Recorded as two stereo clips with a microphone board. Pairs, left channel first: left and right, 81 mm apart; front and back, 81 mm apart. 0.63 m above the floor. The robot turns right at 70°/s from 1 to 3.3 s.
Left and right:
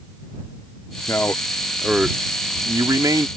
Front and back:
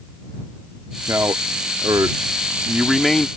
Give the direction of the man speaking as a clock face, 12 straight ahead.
8 o'clock.